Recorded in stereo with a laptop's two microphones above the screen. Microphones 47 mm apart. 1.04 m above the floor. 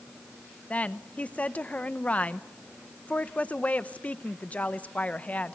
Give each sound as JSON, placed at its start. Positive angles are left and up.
{"t": 0.7, "sound": "a woman speaking", "side_deg": 30, "distance_m": 0.7}